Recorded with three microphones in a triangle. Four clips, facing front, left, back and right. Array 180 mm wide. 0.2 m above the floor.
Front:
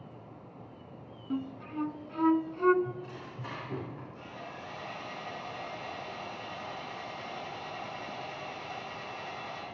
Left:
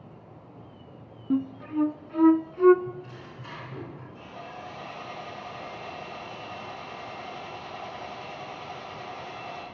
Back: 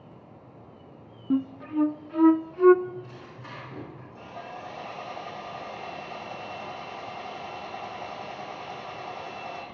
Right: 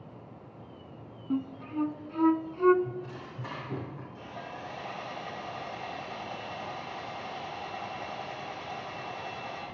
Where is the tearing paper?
60° right, 8.5 m.